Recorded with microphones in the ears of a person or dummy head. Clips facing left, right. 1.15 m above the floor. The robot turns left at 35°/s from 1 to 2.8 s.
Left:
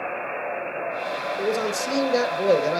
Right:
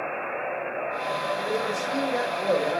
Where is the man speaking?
85° left, 1.3 m; by 2.8 s 35° left, 1.3 m.